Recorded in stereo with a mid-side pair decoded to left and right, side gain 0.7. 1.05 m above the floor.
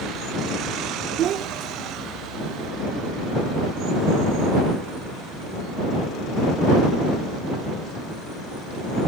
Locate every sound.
1.2 s a child speaking: 50° right; by 2.7 s 35° right